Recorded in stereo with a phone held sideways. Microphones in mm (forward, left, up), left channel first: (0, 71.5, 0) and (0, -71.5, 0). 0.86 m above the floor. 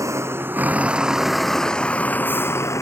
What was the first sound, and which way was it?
A vehicle, 20° right (ahead or behind).